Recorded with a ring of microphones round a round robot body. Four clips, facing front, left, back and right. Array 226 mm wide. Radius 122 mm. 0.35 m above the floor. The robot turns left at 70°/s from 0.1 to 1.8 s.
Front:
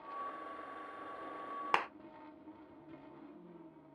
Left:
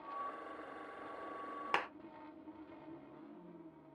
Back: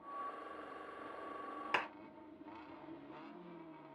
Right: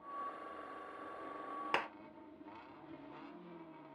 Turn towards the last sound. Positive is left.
turn(degrees=-5)